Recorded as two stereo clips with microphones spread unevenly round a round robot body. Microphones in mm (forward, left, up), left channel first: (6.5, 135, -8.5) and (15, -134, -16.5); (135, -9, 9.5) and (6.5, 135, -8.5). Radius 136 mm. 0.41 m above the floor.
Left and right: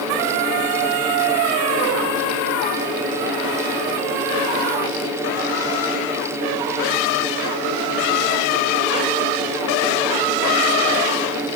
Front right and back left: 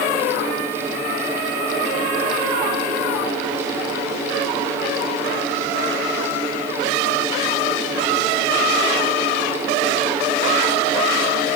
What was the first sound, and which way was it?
Only background noise.